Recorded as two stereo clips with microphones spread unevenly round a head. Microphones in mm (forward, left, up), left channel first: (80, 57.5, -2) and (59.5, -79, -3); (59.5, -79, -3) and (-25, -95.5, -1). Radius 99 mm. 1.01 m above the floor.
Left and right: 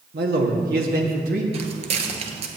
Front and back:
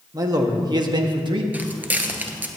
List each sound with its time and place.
0.1 s a man speaking: 125° right, 1.5 m; by 1.4 s 150° right, 1.5 m
1.5 s footsteps: 110° right, 1.3 m